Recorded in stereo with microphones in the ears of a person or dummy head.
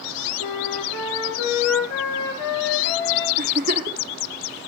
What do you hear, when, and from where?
0.4 s a flute: 60° left (ahead or behind), 3 m
3.4 s a giggle: 40° right (ahead or behind), 1.0 m